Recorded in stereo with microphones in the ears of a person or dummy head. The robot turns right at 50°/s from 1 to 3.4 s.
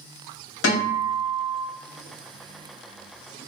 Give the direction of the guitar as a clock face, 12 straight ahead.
9 o'clock.